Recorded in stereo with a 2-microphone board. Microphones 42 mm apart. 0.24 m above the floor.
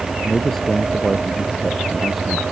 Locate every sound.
0.2 s a man speaking: 5° left (ahead or behind); by 2.4 s 5° right (ahead or behind)